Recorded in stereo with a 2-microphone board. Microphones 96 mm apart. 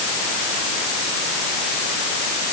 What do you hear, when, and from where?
Only background noise.